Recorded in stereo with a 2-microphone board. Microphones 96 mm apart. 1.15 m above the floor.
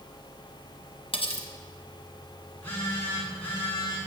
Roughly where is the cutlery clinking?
Left.